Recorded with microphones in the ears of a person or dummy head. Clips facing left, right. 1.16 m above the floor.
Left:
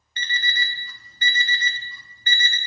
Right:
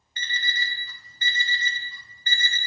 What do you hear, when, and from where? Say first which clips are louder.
0.2 s an alarm clock: left 3 dB; 55° left (ahead or behind), 0.9 m